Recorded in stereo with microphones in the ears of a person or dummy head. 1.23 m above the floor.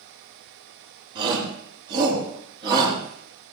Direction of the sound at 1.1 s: 30° right (ahead or behind).